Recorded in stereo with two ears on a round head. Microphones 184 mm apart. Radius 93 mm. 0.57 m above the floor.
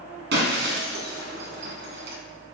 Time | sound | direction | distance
0.3 | breaking glass | 55° right (ahead or behind) | 2 m